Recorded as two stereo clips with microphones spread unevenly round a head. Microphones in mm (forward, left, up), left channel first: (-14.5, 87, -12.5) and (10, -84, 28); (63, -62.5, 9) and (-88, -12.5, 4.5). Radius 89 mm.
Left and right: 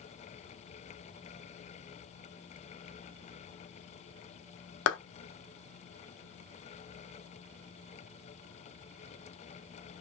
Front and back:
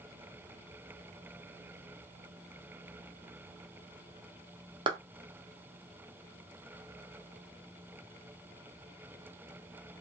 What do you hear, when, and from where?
4.9 s a clap: 95° left, 0.9 m